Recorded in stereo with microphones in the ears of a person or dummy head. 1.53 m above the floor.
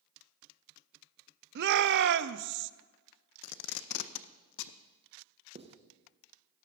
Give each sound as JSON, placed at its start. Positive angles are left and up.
{"t": 1.6, "sound": "a shout", "side_deg": -60, "distance_m": 0.5}
{"t": 3.4, "sound": "tape being pulled", "side_deg": 75, "distance_m": 0.5}
{"t": 5.5, "sound": "writing", "side_deg": -25, "distance_m": 0.9}